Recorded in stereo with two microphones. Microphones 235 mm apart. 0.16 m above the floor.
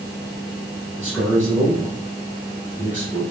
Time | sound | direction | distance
1.0 | a man speaking | 10° left (ahead or behind) | 1.9 m